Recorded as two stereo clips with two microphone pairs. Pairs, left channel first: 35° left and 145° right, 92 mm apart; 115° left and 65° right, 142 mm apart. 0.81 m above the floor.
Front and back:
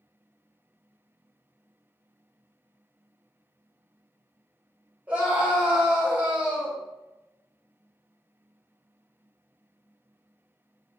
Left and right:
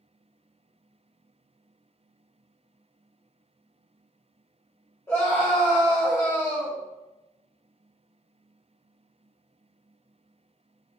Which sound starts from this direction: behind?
A scream, at 5.1 s.